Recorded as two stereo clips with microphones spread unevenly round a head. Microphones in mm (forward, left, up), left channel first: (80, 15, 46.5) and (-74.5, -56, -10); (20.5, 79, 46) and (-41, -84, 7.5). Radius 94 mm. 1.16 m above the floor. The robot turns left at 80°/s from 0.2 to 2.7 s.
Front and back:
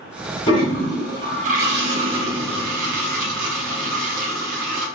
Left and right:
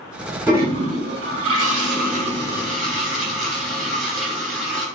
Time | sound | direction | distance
0.5 | a toilet flushing | 25° right | 3.5 m